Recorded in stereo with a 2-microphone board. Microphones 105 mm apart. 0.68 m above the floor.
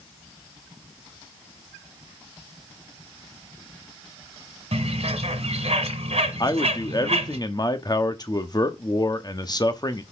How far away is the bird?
About 1.4 m.